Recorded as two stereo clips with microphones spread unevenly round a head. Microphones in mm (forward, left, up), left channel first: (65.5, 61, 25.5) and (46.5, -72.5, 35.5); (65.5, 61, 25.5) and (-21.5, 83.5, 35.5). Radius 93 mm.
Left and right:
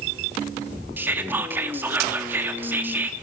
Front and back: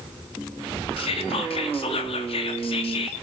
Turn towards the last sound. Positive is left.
turn(degrees=-20)